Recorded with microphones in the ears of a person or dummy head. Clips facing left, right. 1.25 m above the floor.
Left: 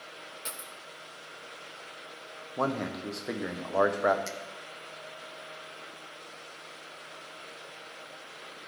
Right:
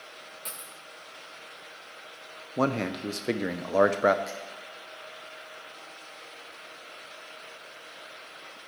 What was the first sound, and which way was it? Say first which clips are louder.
A dropped coin: left 2 dB; 20° left (ahead or behind).